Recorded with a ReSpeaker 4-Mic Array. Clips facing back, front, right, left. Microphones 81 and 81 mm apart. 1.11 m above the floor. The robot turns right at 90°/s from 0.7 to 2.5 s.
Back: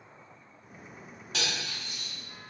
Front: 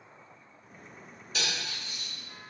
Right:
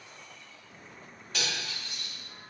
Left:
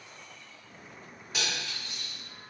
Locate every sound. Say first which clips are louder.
1.3 s cutlery clinking: back 1 dB, even; 170° left, 1.6 m; by 2.1 s 120° right, 1.6 m